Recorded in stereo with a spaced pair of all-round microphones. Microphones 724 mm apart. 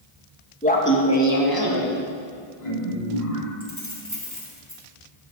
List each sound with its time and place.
0.6 s laughter: 10° left (ahead or behind), 1.2 m; by 3.5 s 55° left (ahead or behind), 2.5 m
3.6 s keys jangling: 25° left (ahead or behind), 1.6 m